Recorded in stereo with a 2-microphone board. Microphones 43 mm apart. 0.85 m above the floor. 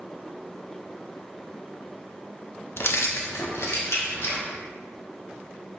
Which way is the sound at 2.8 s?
65° left (ahead or behind).